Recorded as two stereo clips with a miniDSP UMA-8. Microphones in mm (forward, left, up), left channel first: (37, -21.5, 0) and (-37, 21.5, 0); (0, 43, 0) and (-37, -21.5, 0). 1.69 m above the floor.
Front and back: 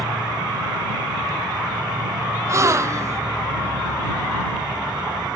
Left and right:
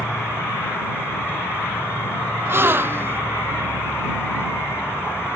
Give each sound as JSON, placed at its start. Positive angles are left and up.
{"t": 0.0, "sound": "an insect", "azimuth_deg": 120}
{"t": 2.5, "sound": "a gasp", "azimuth_deg": -170}